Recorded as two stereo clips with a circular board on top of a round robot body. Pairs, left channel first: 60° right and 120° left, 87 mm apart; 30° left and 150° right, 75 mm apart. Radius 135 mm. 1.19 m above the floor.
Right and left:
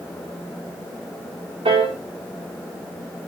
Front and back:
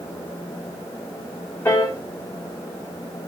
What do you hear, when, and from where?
1.6 s a piano: 95° left, 1.5 m